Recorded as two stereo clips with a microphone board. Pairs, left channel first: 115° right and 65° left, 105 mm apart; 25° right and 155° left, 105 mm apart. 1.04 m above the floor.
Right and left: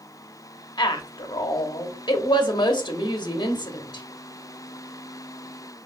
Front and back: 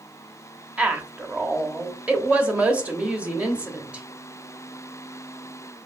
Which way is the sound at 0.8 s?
130° right.